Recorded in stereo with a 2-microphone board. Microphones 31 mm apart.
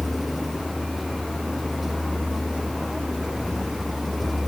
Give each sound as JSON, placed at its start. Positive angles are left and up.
{"t": 0.0, "sound": "a vehicle", "side_deg": -5}